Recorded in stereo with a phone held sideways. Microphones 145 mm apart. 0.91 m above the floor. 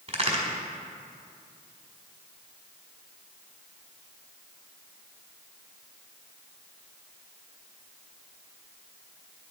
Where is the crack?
45° right (ahead or behind), 1.6 m.